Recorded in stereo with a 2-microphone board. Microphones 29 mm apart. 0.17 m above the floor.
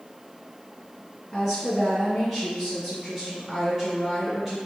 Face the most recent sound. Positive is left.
turn(degrees=5)  # may be behind; listen again after turning